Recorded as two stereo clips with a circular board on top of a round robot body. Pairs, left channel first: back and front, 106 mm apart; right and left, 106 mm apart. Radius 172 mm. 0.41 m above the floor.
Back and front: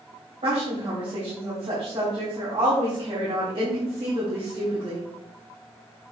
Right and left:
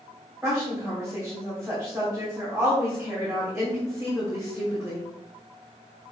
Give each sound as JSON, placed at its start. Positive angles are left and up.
{"t": 0.4, "sound": "a woman speaking", "azimuth_deg": 15, "distance_m": 3.5}